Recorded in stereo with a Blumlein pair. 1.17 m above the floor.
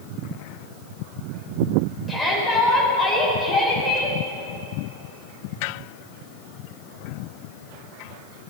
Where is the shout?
Straight ahead, 4 m.